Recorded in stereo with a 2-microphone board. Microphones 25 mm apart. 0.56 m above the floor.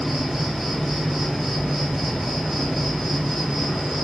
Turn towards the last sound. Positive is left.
turn(degrees=-15)  # may be behind; listen again after turning